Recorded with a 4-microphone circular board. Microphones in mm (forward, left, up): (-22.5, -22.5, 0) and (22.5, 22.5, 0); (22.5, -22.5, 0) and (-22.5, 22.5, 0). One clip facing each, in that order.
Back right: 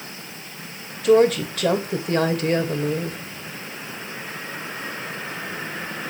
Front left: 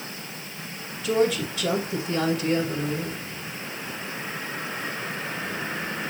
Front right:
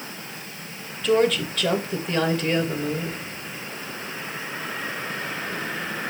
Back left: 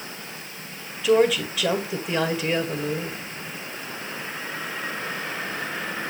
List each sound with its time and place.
1.0 s a woman speaking: 140° right, 2 m